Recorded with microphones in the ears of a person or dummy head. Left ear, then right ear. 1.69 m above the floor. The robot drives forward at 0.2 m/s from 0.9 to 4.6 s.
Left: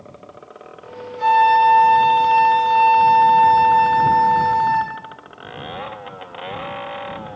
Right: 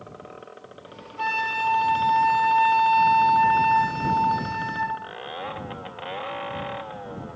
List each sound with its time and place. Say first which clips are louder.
1.2 s a flute: left 12 dB; 10° right (ahead or behind), 1.1 m